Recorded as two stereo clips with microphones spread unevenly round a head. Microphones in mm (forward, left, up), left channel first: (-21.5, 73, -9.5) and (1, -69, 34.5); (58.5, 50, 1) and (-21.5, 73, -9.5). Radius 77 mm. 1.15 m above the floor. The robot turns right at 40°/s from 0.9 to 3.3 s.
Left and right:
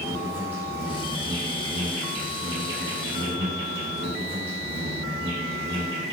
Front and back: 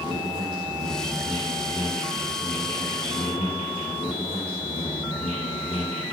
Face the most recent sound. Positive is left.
turn(degrees=-60)